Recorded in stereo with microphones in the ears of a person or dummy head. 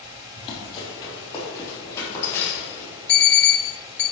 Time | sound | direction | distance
0.4 | running footsteps | 30° left (ahead or behind) | 3 m
3.1 | an alarm clock | 5° left (ahead or behind) | 0.9 m